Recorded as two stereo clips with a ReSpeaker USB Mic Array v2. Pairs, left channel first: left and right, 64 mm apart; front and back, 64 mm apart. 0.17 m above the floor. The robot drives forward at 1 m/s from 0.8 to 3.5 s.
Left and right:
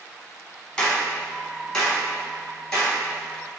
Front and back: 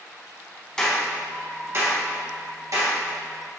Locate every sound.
0.8 s a clap: 50° left, 0.8 m; by 3.6 s 175° left, 2.5 m